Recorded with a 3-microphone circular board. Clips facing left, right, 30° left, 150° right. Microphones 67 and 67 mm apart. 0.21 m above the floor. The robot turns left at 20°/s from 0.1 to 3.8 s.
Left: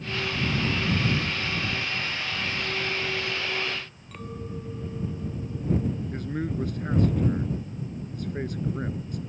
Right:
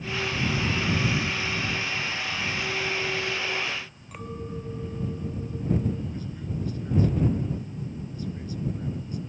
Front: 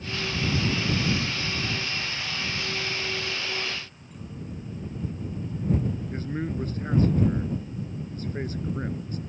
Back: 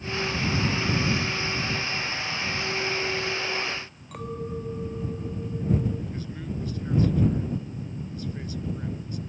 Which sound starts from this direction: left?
A man speaking, at 6.1 s.